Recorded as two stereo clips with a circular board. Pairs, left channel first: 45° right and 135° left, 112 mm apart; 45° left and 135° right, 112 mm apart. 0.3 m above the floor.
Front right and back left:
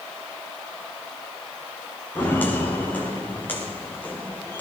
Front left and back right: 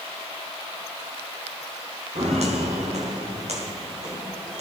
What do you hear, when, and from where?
2.1 s footsteps: 120° right, 5 m